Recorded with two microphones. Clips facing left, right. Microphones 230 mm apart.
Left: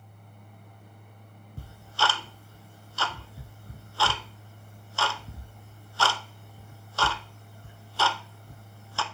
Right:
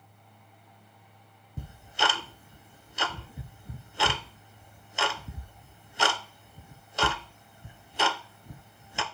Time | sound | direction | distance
1.6 | ticking | 20° right (ahead or behind) | 0.5 m